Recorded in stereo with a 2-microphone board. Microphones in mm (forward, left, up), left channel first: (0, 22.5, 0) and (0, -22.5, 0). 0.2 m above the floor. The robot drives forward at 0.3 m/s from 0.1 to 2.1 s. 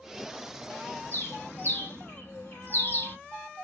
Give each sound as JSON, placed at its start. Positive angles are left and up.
{"t": 1.1, "sound": "a bird", "side_deg": 45, "distance_m": 1.3}